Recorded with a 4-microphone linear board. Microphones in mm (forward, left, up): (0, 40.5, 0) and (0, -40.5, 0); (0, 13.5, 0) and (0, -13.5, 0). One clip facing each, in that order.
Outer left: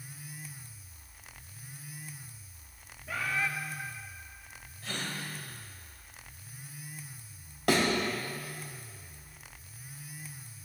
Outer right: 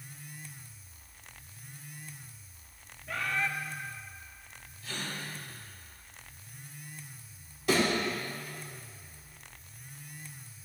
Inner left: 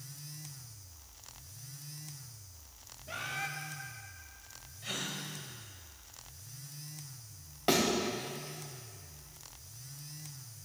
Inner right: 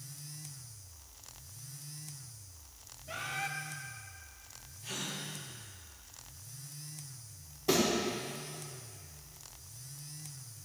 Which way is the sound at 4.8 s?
75° left (ahead or behind).